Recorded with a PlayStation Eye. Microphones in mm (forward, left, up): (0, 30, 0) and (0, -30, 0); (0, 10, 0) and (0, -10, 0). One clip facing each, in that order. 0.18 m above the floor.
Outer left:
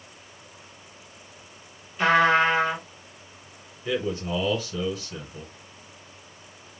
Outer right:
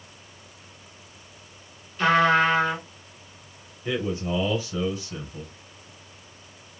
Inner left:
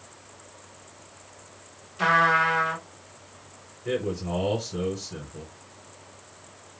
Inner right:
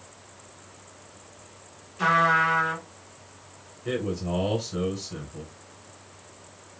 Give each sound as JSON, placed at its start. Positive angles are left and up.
{"t": 2.0, "sound": "a trumpet", "side_deg": 15, "distance_m": 2.0}
{"t": 3.9, "sound": "a man speaking", "side_deg": -15, "distance_m": 1.2}